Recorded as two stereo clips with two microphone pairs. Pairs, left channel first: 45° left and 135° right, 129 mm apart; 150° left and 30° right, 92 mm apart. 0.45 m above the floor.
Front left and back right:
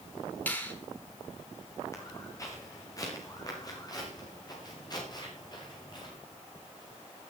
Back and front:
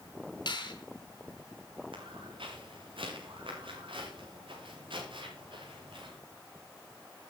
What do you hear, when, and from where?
0.5 s a finger snap: 120° left, 5 m
1.9 s footsteps: 20° right, 7.5 m; by 6.2 s 10° right, 9 m